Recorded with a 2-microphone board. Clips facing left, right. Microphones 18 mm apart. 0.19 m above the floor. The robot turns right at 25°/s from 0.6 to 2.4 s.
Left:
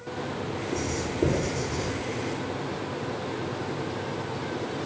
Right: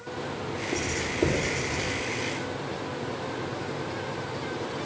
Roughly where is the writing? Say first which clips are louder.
Right 2 dB; right.